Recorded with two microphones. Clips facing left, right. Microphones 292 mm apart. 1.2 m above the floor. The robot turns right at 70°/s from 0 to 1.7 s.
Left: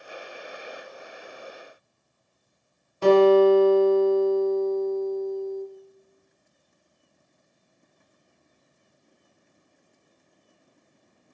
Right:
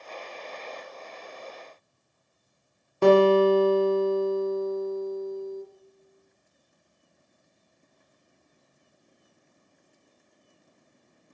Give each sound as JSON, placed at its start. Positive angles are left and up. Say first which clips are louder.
{"t": 3.0, "sound": "a guitar", "louder": "left 2 dB", "side_deg": -70, "distance_m": 0.5}